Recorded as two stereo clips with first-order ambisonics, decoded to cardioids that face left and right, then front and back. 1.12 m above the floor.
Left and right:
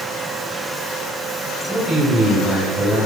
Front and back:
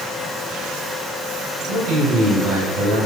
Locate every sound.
1.7 s a man speaking: 170° left, 4 m